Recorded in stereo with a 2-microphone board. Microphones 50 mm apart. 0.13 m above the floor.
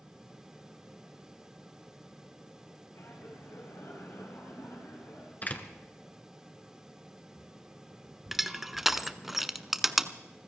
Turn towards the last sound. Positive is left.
turn(degrees=-5)  # may be behind; listen again after turning